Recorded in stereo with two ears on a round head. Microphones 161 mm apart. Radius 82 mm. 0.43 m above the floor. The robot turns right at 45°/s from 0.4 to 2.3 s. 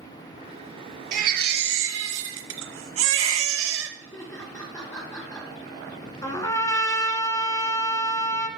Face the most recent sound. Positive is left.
turn(degrees=20)  # may be behind; listen again after turning